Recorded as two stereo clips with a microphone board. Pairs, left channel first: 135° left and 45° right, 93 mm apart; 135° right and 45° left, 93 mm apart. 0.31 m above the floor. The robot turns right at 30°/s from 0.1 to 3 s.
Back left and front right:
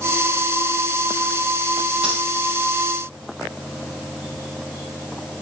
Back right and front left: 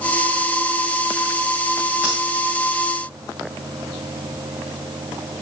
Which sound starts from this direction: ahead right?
Breathing, at 2.0 s.